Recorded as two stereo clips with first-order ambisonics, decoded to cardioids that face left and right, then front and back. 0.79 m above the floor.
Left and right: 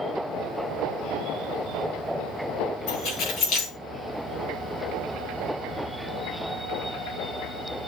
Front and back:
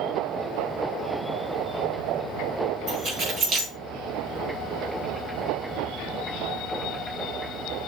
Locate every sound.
2.9 s keys jangling: 125° left, 6 m